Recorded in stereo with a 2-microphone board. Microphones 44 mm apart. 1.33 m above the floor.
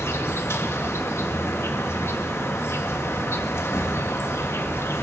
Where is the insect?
85° left, 1.9 m.